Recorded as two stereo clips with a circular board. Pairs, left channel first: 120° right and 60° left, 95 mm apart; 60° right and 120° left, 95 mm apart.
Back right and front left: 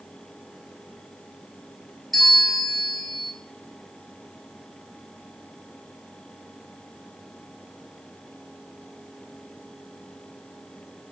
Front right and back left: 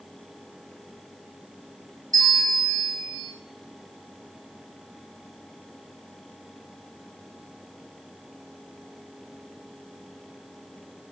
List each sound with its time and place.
2.1 s a bell: 150° left, 2 m